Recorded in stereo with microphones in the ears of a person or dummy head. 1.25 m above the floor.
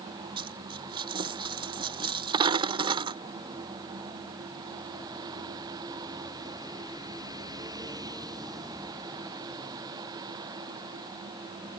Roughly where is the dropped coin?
Right.